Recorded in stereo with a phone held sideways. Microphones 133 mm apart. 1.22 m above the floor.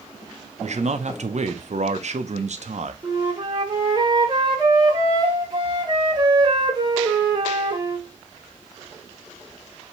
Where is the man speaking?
60° right (ahead or behind), 0.7 m.